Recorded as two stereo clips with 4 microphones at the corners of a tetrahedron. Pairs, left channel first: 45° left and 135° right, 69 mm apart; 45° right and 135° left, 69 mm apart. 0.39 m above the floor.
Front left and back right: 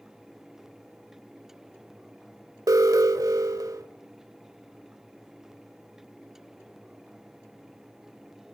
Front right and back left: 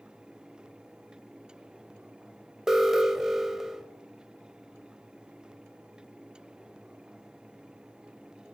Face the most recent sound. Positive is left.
turn(degrees=-145)